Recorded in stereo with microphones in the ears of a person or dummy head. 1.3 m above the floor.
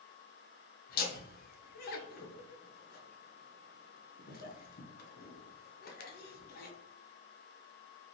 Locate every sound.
0.9 s laughter: 45° left (ahead or behind), 0.6 m